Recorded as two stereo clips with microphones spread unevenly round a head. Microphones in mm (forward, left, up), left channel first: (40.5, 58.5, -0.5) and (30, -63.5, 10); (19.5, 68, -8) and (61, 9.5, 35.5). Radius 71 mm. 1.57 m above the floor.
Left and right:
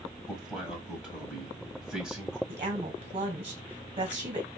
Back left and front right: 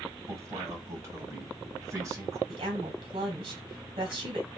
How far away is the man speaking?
About 1.5 m.